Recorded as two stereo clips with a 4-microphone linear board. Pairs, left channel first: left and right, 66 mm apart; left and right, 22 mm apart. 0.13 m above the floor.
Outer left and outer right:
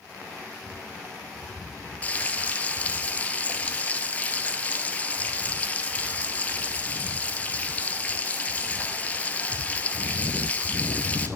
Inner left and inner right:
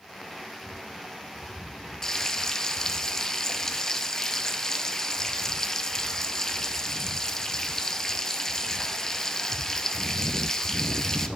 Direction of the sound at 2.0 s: 25° left (ahead or behind).